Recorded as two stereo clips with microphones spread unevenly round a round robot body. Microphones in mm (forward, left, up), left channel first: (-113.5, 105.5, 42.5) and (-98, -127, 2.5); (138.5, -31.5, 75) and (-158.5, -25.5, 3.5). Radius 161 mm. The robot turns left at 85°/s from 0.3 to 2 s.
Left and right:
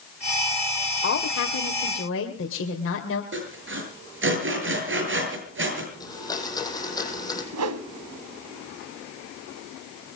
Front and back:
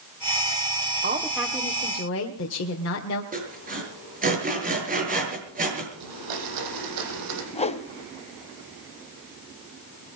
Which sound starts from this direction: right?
A whoosh, at 7.5 s.